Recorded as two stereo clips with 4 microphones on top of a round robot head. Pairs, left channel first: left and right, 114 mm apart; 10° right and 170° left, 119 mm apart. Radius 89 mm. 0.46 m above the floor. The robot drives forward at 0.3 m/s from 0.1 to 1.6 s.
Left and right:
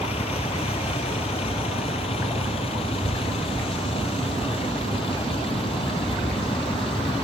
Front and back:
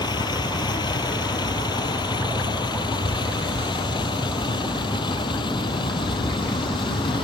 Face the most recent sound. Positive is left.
turn(degrees=35)